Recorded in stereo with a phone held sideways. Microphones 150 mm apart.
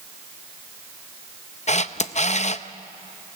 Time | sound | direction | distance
1.7 | a camera shutter | 50° left (ahead or behind) | 0.6 m